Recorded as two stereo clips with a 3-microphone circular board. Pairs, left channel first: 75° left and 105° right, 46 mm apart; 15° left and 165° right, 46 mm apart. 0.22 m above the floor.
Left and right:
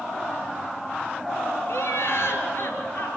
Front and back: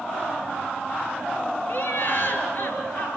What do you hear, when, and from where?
1.7 s laughter: 50° left, 5.5 m; by 3.2 s 45° left, 4.5 m